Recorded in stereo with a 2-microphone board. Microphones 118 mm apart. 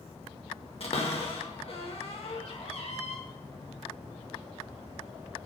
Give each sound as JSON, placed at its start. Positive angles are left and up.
{"t": 0.8, "sound": "a cupboard door", "side_deg": 55, "distance_m": 0.6}